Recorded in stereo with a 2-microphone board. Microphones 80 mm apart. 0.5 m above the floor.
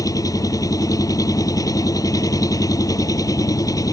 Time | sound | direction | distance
0.0 | an engine running | 45° left (ahead or behind) | ?